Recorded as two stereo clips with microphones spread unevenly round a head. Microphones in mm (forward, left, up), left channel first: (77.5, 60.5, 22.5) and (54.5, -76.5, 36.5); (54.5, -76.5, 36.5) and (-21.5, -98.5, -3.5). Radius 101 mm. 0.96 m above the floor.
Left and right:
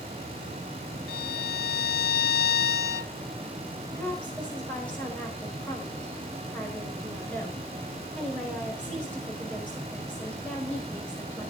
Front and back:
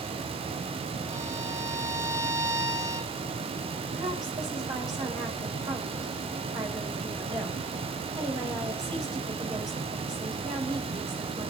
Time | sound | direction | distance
1.1 | a violin | 115° left | 0.6 m
4.0 | a woman speaking | 165° left | 5.5 m